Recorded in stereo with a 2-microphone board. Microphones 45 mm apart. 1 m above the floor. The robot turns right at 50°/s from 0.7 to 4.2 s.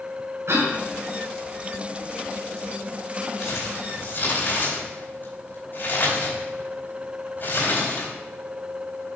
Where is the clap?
No clap in this recording.